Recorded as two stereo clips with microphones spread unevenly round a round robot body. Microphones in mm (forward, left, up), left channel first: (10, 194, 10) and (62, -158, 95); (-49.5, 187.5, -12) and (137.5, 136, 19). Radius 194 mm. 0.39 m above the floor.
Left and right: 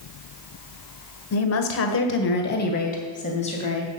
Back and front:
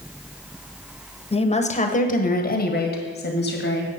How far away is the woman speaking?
About 1.5 m.